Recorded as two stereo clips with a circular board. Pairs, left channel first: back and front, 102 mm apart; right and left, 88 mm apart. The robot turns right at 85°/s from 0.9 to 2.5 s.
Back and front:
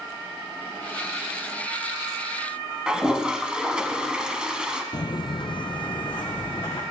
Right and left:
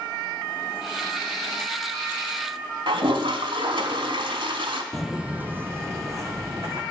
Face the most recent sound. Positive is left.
turn(degrees=140)